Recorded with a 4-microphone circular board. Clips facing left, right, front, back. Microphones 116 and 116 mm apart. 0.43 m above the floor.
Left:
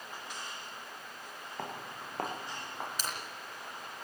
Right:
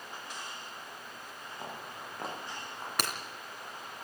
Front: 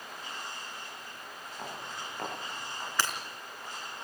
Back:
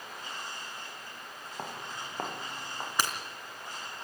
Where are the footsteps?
125° left, 7 m.